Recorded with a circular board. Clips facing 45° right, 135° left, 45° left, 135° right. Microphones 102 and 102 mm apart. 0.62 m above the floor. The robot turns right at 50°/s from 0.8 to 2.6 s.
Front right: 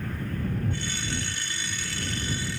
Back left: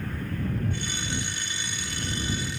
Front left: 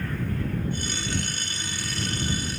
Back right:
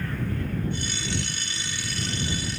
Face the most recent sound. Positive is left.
No sound to turn to.